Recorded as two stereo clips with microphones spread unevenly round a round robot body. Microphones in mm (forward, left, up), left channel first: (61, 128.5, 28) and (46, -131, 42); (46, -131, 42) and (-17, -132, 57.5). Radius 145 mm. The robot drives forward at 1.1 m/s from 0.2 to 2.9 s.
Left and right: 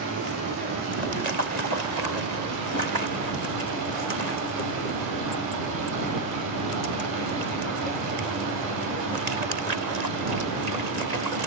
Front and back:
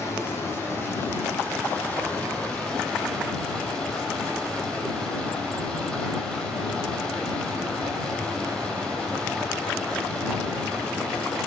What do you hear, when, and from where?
0.0 s running water: 50° right, 6 m; by 11.5 s 80° right, 4.5 m